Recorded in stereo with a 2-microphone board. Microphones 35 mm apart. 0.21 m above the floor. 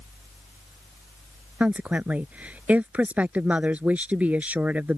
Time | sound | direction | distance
1.6 | a woman speaking | 45° right (ahead or behind) | ?